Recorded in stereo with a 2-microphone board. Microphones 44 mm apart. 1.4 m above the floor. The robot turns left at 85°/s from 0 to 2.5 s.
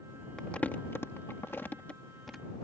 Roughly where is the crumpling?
Centre.